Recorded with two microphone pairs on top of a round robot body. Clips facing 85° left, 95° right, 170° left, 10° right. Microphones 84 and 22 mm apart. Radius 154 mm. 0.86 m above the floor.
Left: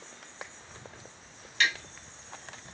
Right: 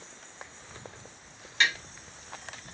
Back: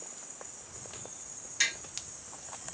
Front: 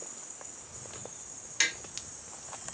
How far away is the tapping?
About 1.5 m.